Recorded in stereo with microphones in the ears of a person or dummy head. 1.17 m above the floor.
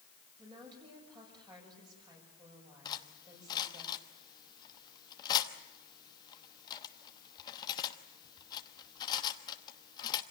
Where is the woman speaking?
25° right (ahead or behind), 7 m.